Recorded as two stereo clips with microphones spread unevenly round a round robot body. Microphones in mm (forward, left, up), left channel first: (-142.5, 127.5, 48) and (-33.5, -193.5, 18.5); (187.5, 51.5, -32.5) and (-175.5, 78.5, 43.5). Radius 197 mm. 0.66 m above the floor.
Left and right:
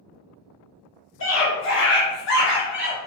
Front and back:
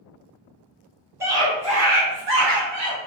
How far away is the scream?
About 1.4 m.